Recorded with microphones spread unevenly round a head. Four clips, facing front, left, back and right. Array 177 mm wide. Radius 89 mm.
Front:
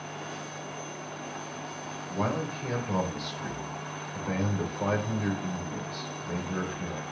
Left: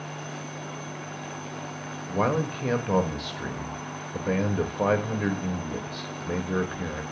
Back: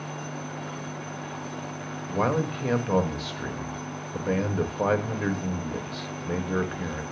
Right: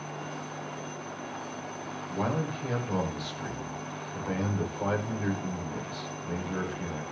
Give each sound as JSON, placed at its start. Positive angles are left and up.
{"t": 2.1, "sound": "a man speaking", "azimuth_deg": 135, "distance_m": 1.7}